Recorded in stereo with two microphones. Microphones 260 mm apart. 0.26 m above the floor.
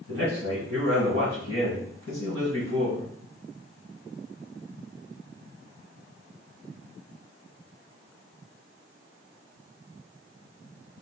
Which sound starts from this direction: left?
A man speaking, at 0.1 s.